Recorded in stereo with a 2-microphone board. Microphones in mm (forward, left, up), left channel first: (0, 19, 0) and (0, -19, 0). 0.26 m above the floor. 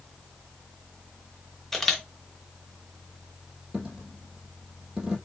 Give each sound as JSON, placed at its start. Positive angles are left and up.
{"t": 1.7, "sound": "a camera shutter", "side_deg": 5, "distance_m": 1.0}
{"t": 3.7, "sound": "a dropped coin", "side_deg": -15, "distance_m": 1.9}